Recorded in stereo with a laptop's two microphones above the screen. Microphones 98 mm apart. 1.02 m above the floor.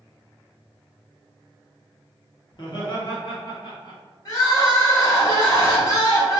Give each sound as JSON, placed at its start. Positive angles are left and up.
{"t": 2.5, "sound": "laughter", "side_deg": 50, "distance_m": 0.8}
{"t": 4.2, "sound": "crying", "side_deg": 40, "distance_m": 0.9}